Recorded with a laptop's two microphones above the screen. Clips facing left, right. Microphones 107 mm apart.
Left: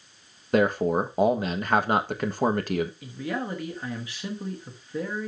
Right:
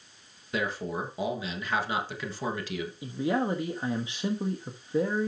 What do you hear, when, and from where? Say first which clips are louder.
0.5 s a man speaking: left 10 dB; 50° left (ahead or behind), 1.4 m
3.0 s a man speaking: right 4 dB; 20° right (ahead or behind), 1.1 m